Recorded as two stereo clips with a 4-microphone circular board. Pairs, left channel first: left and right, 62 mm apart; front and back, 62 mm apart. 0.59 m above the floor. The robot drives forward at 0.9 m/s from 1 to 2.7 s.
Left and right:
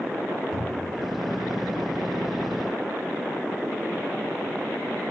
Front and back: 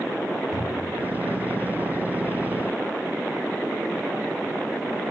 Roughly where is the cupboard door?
Ahead.